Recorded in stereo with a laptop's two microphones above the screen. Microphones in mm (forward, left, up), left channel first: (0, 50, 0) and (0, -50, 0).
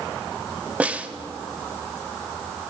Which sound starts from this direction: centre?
A snare drum, at 0.8 s.